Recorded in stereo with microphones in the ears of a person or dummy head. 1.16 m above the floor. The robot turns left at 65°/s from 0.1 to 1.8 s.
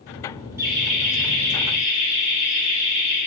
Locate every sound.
0.6 s laughter: 20° right, 1.5 m; by 3.2 s 100° right, 1.5 m